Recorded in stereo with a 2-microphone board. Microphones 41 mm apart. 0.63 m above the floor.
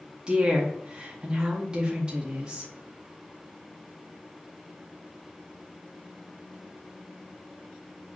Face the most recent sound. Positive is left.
turn(degrees=-20)  # may be behind; listen again after turning